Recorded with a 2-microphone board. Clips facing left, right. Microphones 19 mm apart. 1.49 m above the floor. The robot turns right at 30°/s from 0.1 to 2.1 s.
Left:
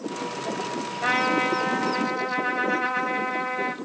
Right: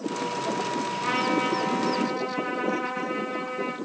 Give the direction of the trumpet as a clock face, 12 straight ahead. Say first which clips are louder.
Left 4 dB; 9 o'clock.